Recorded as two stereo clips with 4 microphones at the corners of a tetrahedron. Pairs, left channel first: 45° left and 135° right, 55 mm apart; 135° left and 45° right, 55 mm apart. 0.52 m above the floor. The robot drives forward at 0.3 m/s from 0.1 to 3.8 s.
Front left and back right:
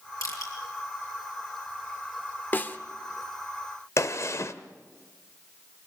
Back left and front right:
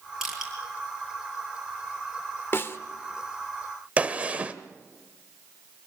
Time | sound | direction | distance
0.2 | crushing | 35° left | 6.5 m
2.5 | a snare drum | 95° left | 1.0 m
4.0 | a gunshot | 20° left | 1.0 m